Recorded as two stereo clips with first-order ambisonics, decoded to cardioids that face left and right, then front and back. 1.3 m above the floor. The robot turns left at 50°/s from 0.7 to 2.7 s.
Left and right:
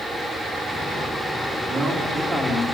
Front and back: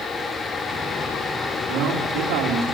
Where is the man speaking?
150° right, 2.5 m; by 2.7 s 160° left, 2.5 m.